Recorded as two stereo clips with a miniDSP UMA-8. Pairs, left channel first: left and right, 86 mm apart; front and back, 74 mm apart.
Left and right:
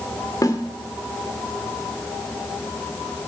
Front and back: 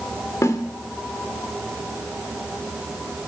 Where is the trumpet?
I don't hear a trumpet.